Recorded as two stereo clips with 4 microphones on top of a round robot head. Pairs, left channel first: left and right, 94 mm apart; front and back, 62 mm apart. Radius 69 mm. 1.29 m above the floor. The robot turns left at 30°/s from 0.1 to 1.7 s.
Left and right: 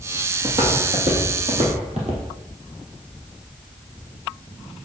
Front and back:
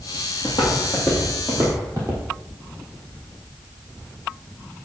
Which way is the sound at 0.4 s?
50° right.